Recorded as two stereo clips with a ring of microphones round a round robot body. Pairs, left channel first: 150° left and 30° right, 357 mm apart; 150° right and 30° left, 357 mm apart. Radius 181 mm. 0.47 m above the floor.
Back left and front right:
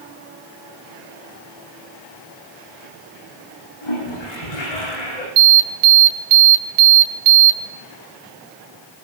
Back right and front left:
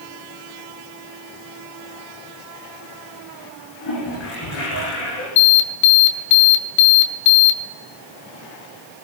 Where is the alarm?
95° right, 2 m.